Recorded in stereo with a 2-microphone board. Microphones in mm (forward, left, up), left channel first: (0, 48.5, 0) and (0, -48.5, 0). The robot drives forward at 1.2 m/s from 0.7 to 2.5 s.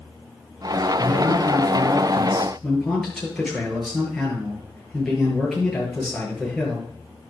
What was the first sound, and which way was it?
A man speaking, centre (ahead or behind).